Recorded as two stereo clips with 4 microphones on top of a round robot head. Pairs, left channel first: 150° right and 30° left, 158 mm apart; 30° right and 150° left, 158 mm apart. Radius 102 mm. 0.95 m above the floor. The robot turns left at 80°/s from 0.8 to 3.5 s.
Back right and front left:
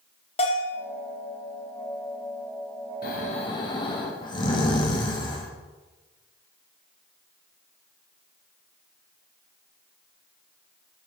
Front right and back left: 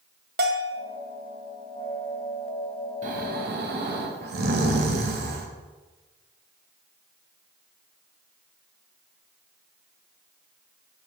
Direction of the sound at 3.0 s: 170° right.